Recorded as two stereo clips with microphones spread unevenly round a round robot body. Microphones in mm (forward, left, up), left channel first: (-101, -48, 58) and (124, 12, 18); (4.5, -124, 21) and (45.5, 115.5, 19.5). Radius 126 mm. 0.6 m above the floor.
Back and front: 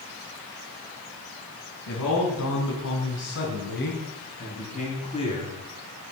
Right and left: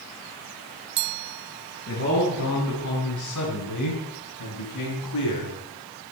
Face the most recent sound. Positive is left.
turn(degrees=-95)